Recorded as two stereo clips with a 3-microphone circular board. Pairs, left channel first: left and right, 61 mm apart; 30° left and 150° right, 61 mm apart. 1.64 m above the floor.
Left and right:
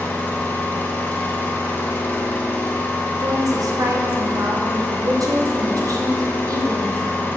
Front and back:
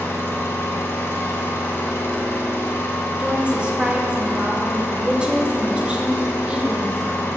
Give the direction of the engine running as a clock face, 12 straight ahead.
10 o'clock.